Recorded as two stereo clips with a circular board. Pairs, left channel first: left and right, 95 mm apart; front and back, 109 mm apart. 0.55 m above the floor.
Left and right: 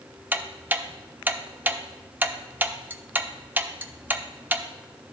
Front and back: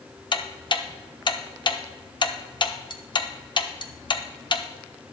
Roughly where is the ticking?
Ahead right.